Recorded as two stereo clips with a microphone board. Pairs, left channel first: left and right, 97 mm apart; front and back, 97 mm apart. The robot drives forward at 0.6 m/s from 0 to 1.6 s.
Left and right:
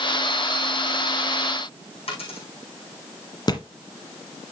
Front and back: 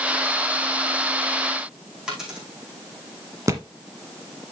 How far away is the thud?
About 1.2 m.